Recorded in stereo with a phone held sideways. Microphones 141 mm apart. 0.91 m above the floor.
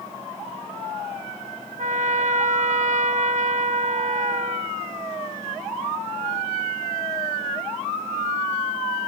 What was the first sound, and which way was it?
A trumpet, 65° right (ahead or behind).